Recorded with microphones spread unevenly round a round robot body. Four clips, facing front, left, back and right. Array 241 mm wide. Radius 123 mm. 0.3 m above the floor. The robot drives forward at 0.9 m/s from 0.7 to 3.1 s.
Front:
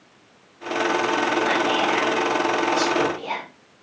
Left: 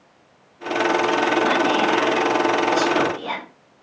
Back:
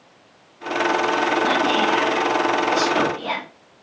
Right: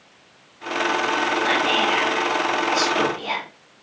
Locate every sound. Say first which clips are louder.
1.4 s whispering: left 2 dB, back 2 dB; 135° left, 3 m; by 3.4 s 150° left, 4 m